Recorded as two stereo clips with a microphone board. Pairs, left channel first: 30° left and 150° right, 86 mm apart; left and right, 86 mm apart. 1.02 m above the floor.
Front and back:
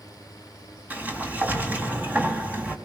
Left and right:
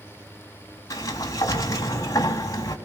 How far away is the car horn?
I don't hear a car horn.